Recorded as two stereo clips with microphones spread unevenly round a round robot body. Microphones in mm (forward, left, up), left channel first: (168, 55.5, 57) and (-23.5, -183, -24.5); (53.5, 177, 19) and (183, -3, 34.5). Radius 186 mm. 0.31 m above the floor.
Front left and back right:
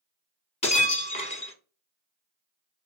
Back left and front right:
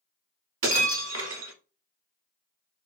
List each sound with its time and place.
0.6 s breaking glass: 20° right, 0.9 m